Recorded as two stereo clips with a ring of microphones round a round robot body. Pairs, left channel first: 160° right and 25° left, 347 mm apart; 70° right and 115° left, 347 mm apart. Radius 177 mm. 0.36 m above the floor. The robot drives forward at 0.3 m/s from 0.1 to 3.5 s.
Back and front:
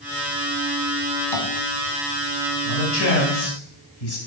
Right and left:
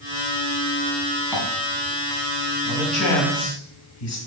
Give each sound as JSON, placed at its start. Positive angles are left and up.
{"t": 1.3, "sound": "tapping", "azimuth_deg": -155, "distance_m": 2.0}
{"t": 2.6, "sound": "a man speaking", "azimuth_deg": -105, "distance_m": 3.0}